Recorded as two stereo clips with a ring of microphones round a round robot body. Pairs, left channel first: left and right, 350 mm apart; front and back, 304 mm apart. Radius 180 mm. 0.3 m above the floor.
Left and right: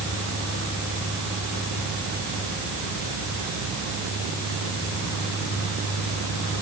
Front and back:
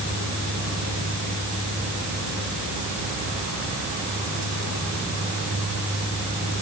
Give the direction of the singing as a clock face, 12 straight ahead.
No singing in this recording.